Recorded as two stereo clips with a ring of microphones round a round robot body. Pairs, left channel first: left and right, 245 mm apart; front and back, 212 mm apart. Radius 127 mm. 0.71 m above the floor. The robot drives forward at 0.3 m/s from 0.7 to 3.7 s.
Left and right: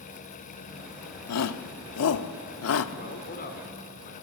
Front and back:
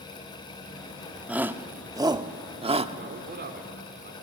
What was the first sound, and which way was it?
A shout, 95° left.